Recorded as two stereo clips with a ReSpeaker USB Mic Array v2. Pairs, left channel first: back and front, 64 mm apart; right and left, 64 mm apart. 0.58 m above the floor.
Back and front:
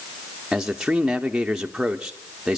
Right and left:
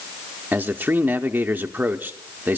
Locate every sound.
0.5 s a man speaking: 70° left, 0.7 m